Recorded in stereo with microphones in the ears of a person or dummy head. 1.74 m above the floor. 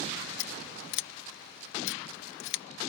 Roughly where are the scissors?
Left.